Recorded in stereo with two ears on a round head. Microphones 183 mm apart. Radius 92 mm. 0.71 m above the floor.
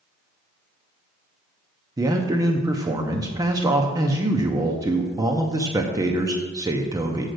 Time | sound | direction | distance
2.0 | a man speaking | 15° right (ahead or behind) | 0.7 m